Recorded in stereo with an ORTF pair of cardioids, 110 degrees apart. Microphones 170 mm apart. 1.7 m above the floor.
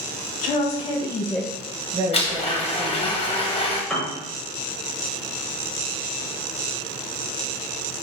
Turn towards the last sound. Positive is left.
turn(degrees=5)